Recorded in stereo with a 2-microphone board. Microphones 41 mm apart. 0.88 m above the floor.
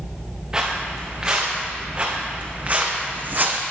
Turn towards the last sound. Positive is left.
turn(degrees=-50)  # may be behind; listen again after turning